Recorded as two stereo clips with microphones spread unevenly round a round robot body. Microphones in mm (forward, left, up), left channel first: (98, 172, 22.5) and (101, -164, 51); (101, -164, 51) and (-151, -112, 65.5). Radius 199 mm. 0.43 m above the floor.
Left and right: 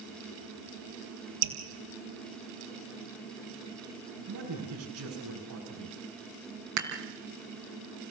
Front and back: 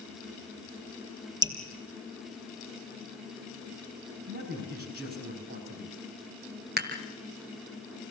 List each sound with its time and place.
1.4 s dripping: 115° right, 3.5 m
4.3 s a man speaking: 140° right, 5.5 m
6.8 s dishes clattering: 140° right, 3 m